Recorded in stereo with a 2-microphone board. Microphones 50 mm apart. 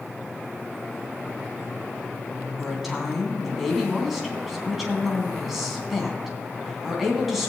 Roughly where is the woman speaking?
Centre.